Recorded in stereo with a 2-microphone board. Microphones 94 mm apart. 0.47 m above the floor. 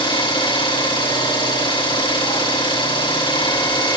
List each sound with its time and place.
0.0 s an engine running: 50° left (ahead or behind), 3 m